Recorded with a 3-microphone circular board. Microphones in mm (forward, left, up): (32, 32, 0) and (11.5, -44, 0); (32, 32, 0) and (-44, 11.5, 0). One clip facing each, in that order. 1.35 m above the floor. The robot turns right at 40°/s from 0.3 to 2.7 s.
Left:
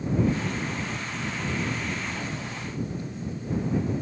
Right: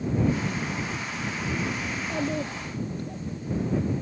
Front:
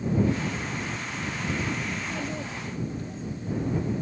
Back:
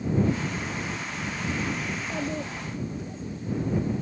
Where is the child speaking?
110° right; by 3.2 s 80° right.